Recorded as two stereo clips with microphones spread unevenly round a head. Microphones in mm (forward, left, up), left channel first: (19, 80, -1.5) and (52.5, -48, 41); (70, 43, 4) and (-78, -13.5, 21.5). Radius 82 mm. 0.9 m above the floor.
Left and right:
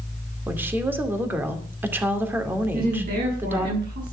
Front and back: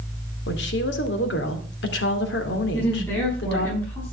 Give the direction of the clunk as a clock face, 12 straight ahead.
I don't hear a clunk.